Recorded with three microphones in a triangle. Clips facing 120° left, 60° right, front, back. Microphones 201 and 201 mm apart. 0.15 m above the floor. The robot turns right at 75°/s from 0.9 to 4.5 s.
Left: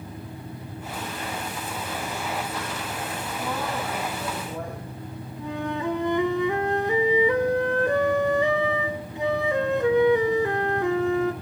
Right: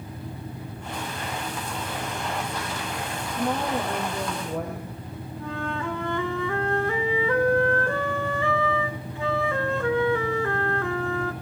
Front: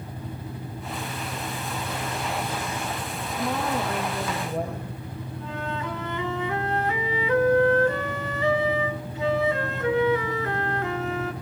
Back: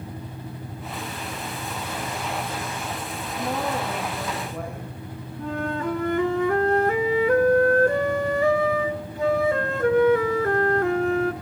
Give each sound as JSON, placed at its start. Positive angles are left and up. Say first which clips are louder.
{"t": 3.4, "sound": "a woman speaking", "louder": "right 5 dB, even", "azimuth_deg": -135, "distance_m": 4.5}
{"t": 5.4, "sound": "a flute", "louder": "left 3 dB, back 6 dB", "azimuth_deg": -175, "distance_m": 0.9}